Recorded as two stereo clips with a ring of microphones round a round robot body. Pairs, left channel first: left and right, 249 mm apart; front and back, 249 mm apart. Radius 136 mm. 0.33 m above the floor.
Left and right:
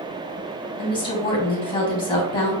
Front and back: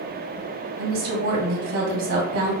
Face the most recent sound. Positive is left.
turn(degrees=160)